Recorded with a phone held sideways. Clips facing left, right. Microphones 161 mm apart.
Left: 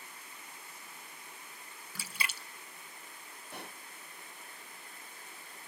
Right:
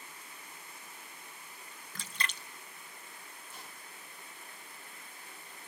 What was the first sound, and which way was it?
A splash, 10° left (ahead or behind).